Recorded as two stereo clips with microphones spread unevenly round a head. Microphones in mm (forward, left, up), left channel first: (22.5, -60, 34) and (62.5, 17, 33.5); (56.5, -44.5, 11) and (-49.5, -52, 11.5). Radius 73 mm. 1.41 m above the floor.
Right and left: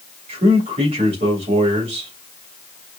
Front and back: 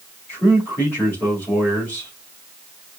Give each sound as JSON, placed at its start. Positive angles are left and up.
{"t": 0.3, "sound": "a man speaking", "azimuth_deg": 85, "distance_m": 2.5}